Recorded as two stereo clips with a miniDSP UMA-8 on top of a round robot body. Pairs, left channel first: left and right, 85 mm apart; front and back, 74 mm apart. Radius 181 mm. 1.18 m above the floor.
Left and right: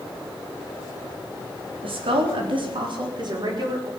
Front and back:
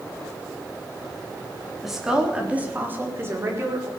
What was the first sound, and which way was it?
A woman speaking, 90° right.